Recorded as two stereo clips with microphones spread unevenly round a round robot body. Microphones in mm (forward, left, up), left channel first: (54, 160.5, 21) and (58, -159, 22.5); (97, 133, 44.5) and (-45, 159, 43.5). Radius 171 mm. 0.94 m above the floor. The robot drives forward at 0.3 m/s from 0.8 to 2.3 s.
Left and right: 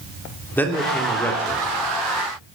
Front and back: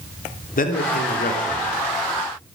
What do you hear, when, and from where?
0.6 s a man speaking: 5° left, 3 m